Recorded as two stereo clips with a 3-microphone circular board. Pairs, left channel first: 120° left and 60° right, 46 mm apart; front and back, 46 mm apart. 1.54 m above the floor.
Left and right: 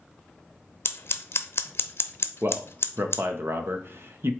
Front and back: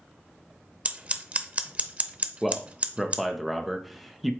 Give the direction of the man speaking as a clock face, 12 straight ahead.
3 o'clock.